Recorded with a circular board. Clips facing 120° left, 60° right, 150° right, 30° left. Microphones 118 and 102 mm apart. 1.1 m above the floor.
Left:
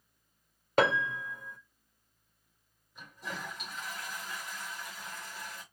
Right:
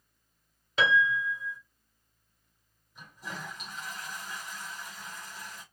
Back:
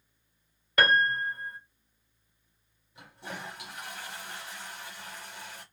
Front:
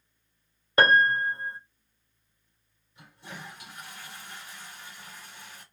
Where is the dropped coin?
I don't hear a dropped coin.